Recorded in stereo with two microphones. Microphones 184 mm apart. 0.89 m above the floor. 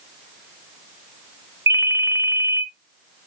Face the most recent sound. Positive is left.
turn(degrees=-15)  # may be behind; listen again after turning